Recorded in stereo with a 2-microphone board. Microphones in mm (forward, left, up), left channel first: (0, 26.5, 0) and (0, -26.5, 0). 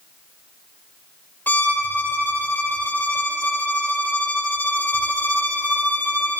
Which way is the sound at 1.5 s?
35° left (ahead or behind).